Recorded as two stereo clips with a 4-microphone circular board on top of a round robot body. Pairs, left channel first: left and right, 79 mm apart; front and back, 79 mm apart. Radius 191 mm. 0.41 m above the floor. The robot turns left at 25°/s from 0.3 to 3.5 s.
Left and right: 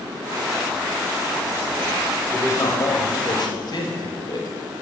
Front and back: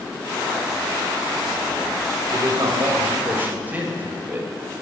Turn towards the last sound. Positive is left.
turn(degrees=115)